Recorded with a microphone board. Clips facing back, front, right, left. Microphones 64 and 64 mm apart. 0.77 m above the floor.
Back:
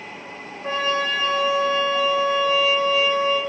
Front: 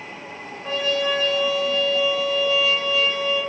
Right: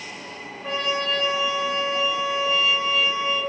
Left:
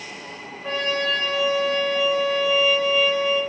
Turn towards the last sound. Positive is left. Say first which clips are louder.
# even, left 1 dB
turn(degrees=-175)